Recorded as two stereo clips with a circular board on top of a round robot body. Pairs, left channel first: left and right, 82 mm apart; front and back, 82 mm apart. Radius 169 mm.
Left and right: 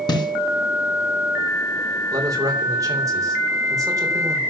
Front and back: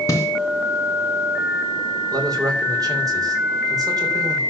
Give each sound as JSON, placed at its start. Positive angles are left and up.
{"t": 0.1, "sound": "a snare drum", "azimuth_deg": 55, "distance_m": 2.5}
{"t": 2.1, "sound": "a man speaking", "azimuth_deg": -140, "distance_m": 4.0}